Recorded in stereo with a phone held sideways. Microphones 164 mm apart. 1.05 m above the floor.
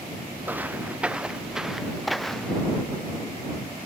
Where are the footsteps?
10° right (ahead or behind); by 2.6 s 5° left (ahead or behind).